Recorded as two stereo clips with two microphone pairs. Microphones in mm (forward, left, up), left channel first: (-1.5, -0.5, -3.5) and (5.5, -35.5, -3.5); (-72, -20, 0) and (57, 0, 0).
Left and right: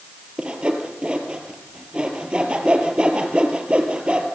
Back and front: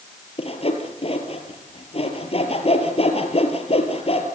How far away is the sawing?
About 3.5 m.